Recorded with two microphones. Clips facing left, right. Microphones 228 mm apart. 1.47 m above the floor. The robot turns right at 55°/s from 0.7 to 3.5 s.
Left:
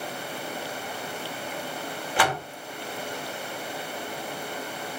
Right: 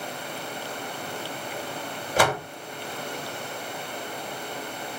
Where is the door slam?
40° right (ahead or behind), 2.5 m; by 2.5 s 60° right (ahead or behind), 2.5 m.